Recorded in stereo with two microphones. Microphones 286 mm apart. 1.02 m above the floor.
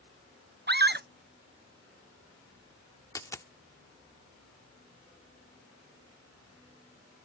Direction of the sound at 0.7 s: 35° right (ahead or behind).